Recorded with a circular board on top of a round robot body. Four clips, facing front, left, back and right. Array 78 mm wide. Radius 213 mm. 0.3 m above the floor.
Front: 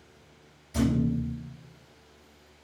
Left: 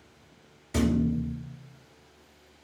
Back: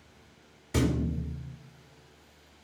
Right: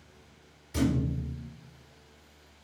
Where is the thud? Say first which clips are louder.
Left 4 dB, front 3 dB; 140° left, 2.5 m.